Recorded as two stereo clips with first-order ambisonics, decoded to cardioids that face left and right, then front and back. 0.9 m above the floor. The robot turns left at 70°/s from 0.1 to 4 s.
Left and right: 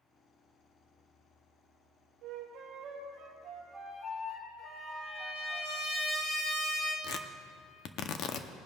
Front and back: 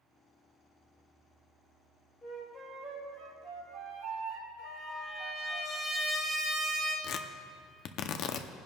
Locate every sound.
2.2 s a flute: 80° right, 3 m; by 5.6 s 155° left, 3 m
4.6 s a trumpet: 85° left, 3.5 m
7.0 s tearing paper: 45° left, 0.6 m